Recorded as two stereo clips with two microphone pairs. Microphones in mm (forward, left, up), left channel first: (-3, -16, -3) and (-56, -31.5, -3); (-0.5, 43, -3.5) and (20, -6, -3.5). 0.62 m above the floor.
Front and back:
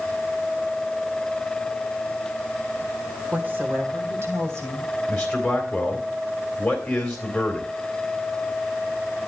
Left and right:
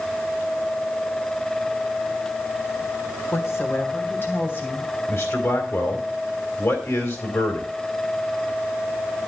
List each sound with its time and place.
3.3 s a woman speaking: 140° left, 1.8 m; by 4.9 s 165° left, 4 m
5.1 s a man speaking: 95° left, 3 m